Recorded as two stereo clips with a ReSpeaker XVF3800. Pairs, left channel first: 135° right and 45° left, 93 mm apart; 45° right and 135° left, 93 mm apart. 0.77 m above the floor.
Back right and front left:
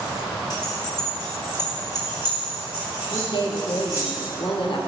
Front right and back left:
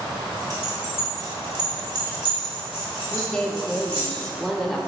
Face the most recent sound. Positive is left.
turn(degrees=-130)